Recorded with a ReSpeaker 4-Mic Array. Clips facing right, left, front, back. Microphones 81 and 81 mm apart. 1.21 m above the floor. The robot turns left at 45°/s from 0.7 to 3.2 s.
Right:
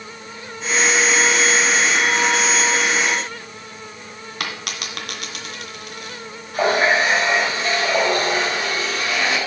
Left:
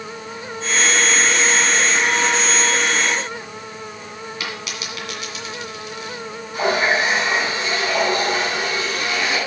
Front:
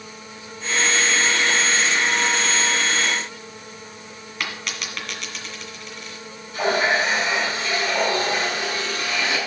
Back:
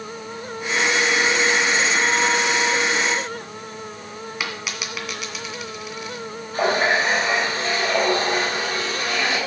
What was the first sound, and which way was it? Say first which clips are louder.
A dropped coin: right 3 dB, front 1 dB; 95° right.